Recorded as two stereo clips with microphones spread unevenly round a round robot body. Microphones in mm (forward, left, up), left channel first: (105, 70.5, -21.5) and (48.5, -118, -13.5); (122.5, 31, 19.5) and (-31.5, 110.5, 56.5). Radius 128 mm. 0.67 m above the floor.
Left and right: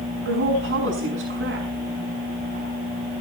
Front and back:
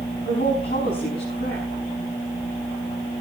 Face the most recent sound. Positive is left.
turn(degrees=-85)